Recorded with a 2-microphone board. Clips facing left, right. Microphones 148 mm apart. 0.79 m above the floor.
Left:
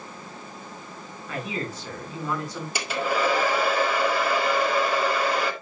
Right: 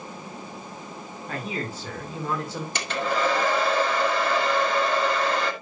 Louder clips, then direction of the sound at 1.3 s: Even; 35° right (ahead or behind).